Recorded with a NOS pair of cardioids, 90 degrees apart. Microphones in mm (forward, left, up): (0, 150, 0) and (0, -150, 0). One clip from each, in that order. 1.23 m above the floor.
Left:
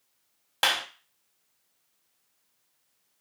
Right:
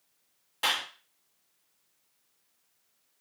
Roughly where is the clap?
Left.